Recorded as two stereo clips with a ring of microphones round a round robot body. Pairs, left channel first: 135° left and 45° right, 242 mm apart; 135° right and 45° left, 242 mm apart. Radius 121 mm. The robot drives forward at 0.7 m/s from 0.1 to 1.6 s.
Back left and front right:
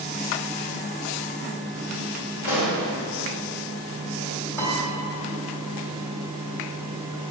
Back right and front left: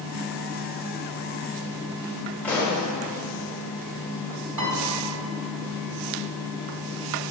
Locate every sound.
2.4 s a pop: 145° left, 2 m
4.6 s a piano: 55° left, 1.8 m